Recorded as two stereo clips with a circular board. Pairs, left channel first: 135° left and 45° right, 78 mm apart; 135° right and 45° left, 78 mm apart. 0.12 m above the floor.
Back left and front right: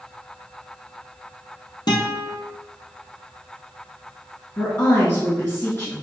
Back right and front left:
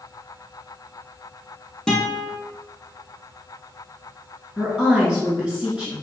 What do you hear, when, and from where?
1.9 s a guitar: 145° left, 1.4 m
4.6 s a woman speaking: 115° left, 1.4 m